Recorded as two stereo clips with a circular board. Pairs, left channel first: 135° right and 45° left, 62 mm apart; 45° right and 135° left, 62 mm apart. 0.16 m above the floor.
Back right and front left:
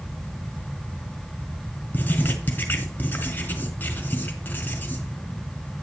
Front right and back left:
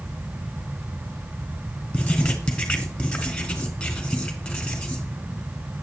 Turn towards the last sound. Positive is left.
turn(degrees=-105)